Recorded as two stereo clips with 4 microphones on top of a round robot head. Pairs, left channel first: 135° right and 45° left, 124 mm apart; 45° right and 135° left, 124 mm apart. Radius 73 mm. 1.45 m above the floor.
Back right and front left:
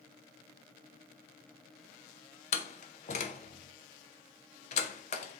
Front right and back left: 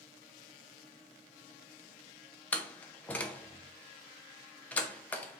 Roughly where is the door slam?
Behind right.